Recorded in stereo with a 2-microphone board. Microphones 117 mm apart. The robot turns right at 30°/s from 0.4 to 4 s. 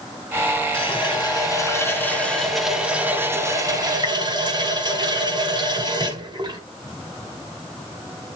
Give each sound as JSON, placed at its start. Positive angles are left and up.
{"t": 0.7, "sound": "a running tap", "azimuth_deg": 125, "distance_m": 2.0}